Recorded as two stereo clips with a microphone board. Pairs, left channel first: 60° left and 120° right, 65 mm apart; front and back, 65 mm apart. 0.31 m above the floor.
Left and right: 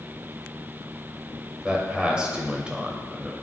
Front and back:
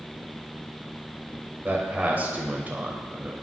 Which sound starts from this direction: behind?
A man speaking, at 1.6 s.